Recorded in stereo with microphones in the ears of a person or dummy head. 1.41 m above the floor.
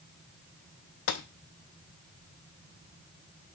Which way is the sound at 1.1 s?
75° left (ahead or behind).